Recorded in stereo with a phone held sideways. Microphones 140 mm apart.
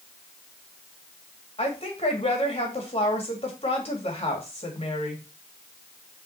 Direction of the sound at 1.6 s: 45° left (ahead or behind).